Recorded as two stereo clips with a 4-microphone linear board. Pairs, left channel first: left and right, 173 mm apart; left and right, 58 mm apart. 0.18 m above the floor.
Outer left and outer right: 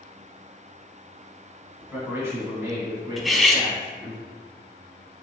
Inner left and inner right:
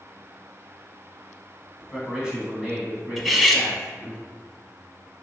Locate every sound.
1.8 s a man speaking: 10° right (ahead or behind), 1.7 m; by 4.2 s 15° right (ahead or behind), 2 m
3.2 s cutlery clinking: centre (ahead or behind), 0.6 m